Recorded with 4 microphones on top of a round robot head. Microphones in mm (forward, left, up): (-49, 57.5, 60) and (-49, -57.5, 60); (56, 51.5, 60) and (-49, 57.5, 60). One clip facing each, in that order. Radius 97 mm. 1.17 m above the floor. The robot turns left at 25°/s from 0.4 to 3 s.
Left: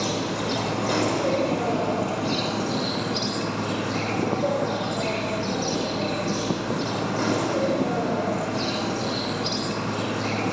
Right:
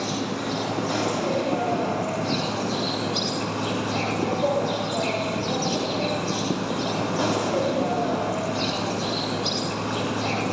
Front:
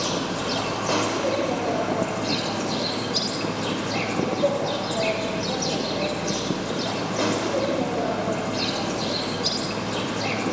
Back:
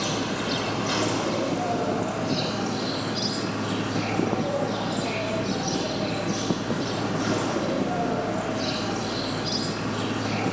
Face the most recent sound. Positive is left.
turn(degrees=-10)